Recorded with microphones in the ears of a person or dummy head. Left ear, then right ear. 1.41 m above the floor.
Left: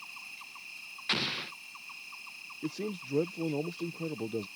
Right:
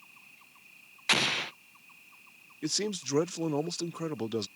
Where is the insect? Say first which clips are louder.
Left 10 dB; 55° left (ahead or behind).